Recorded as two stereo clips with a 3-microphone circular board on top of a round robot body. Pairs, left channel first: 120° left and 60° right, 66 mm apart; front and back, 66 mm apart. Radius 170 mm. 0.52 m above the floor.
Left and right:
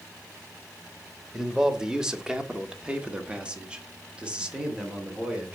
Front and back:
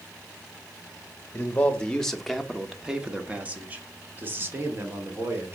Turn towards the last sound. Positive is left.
turn(degrees=-135)